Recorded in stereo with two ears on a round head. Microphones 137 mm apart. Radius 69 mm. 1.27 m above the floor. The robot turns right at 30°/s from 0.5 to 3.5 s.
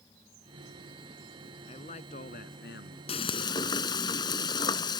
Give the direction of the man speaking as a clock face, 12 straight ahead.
11 o'clock.